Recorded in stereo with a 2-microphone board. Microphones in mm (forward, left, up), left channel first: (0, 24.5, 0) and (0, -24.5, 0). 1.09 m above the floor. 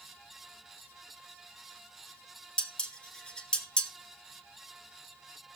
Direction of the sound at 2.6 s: 20° left (ahead or behind).